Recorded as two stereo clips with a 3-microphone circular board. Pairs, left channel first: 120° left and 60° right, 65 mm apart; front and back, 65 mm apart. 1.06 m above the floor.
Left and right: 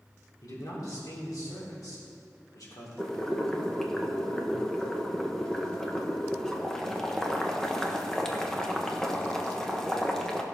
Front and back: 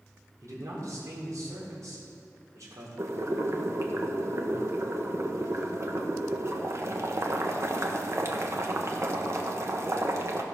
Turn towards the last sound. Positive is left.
turn(degrees=-160)